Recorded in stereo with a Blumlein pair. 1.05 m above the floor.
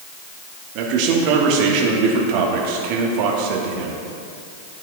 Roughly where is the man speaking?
Ahead right.